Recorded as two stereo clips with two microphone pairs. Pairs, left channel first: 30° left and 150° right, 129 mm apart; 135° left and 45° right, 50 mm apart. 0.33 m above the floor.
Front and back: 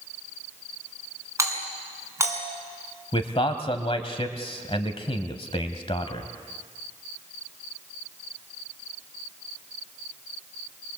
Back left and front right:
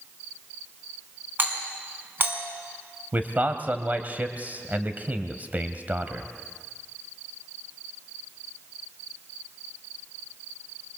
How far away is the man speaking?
About 1.6 m.